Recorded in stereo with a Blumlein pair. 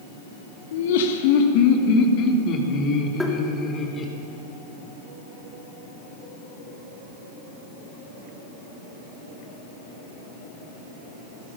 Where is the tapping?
5° left, 3 m.